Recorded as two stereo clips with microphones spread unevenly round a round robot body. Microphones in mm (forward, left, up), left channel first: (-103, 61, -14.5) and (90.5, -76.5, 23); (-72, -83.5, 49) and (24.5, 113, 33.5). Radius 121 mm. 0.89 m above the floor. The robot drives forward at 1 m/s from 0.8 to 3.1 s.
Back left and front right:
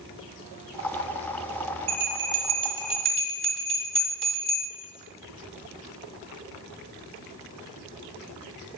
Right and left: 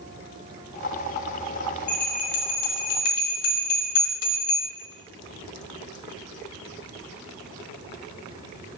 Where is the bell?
55° right, 1.2 m; by 4.7 s 125° right, 1.2 m.